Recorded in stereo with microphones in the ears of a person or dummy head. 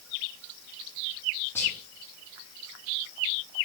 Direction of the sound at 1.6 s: 15° left (ahead or behind).